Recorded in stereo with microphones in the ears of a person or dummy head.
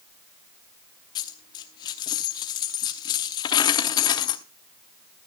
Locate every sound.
1.1 s a dropped coin: 30° left (ahead or behind), 0.9 m